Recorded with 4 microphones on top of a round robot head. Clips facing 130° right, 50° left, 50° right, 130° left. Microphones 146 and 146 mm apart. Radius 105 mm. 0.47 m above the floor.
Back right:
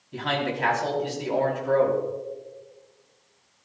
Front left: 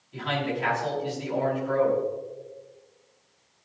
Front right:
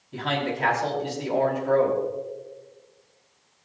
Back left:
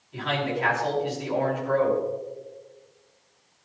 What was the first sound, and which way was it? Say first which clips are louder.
A man speaking: back right 1 dB, even; 95° right.